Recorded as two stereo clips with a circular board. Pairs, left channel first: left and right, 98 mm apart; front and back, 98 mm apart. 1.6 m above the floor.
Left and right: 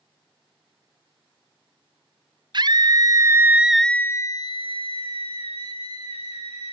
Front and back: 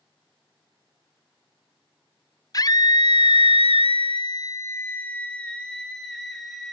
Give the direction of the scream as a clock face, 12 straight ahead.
2 o'clock.